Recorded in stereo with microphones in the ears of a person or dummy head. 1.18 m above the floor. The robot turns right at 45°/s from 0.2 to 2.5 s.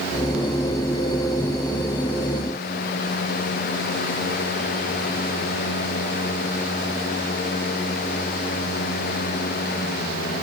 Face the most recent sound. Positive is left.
No sound to turn to.